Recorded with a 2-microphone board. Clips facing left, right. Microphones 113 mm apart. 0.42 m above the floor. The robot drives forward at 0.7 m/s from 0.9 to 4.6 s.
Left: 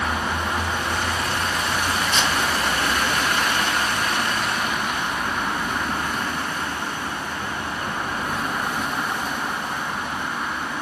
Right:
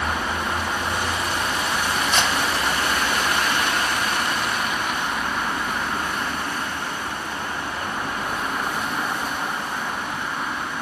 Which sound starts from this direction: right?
A camera shutter, at 2.1 s.